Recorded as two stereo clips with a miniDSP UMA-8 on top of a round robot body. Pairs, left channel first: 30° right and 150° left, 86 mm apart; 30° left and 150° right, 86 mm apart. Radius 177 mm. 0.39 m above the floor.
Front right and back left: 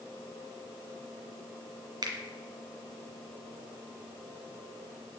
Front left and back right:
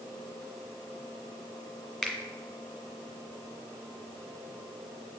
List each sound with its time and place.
2.0 s a finger snap: 110° left, 1.9 m